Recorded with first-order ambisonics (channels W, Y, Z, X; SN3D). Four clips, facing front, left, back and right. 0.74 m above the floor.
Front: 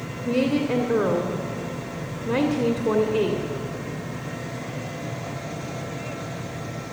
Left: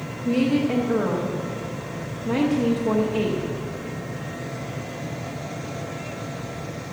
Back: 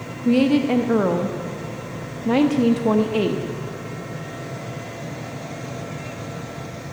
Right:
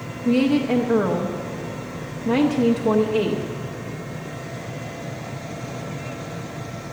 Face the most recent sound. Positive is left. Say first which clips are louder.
# right 2 dB, back 5 dB
turn(degrees=-160)